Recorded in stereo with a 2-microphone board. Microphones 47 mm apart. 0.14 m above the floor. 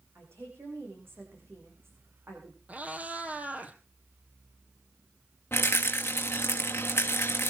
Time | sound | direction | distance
0.1 | a woman speaking | 60° right (ahead or behind) | 7.5 m
2.7 | a cat meowing | 35° right (ahead or behind) | 1.5 m
5.5 | a rattle | 45° left (ahead or behind) | 2.5 m